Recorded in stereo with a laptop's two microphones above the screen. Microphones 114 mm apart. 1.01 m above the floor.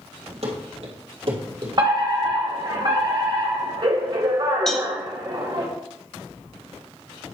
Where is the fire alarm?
40° right (ahead or behind), 1.5 m.